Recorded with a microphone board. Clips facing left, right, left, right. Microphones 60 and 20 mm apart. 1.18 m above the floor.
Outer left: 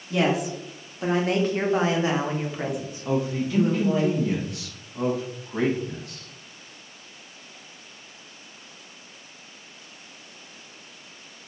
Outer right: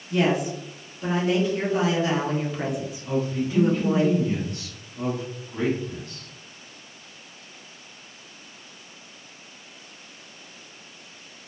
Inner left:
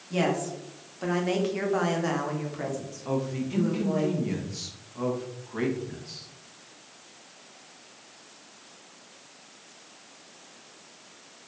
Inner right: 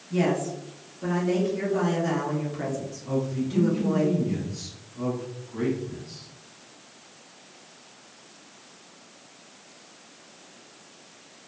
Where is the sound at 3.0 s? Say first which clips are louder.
Outer left 1 dB, inner right 1 dB; 75° left (ahead or behind), 1.1 m.